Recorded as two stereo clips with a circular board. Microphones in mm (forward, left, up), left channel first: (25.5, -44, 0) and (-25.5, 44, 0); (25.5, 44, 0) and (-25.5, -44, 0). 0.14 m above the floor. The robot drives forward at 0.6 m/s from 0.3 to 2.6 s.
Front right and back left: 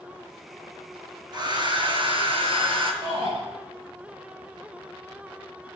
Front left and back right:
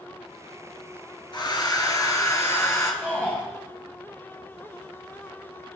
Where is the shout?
130° left, 2.5 m.